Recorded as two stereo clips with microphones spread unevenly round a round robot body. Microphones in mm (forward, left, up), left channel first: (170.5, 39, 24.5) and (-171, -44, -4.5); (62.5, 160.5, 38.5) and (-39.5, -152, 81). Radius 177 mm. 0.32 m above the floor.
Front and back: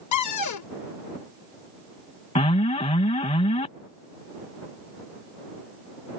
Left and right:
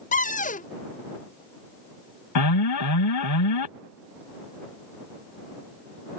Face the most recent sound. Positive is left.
turn(degrees=85)